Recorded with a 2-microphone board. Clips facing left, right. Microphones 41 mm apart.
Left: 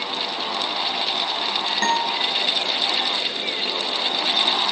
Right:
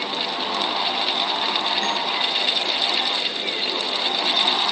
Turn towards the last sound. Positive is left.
turn(degrees=70)  # may be behind; listen again after turning